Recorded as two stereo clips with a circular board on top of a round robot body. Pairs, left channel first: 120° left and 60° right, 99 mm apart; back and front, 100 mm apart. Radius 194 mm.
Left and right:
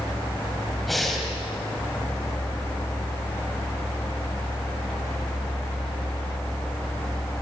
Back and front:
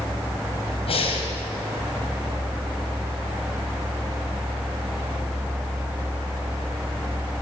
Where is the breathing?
150° right, 4 m.